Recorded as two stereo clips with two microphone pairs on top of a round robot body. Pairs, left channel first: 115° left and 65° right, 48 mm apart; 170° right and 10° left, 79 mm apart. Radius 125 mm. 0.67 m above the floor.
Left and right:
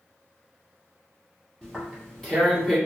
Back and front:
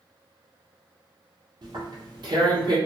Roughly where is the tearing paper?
Ahead left.